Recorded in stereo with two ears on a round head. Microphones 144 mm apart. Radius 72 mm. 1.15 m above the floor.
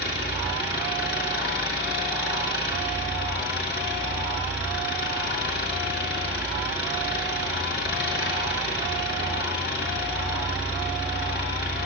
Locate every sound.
0.0 s an engine running: 75° left (ahead or behind), 5.5 m